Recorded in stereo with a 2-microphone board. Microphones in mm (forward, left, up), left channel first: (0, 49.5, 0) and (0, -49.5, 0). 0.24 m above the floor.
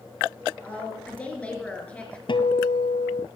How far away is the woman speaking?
About 4 m.